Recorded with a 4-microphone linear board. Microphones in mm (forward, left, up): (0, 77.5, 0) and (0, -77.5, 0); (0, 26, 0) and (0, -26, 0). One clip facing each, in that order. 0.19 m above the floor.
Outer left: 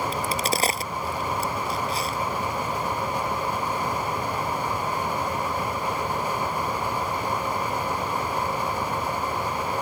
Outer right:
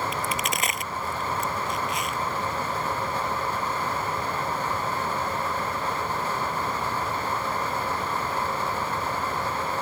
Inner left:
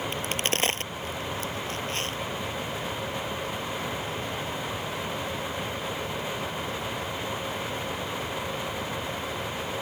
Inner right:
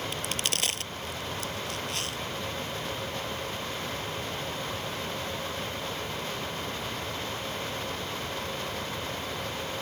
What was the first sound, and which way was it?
A crack, 35° left (ahead or behind).